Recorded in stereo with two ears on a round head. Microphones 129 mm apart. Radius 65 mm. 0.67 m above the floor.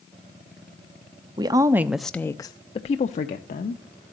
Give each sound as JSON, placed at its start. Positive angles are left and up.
{"t": 1.4, "sound": "a woman speaking", "side_deg": -30, "distance_m": 0.7}